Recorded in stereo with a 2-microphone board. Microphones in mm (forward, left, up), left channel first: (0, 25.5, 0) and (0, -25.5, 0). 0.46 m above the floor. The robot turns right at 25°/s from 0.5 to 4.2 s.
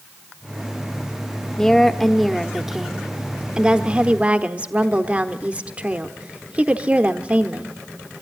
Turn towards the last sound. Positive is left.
turn(degrees=-135)